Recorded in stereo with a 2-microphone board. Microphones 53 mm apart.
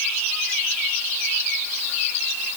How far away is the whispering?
No whispering in this recording.